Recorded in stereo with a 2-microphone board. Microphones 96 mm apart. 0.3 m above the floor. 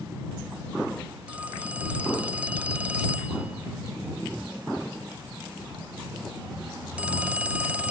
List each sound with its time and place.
1.3 s a phone ringing: 15° right (ahead or behind)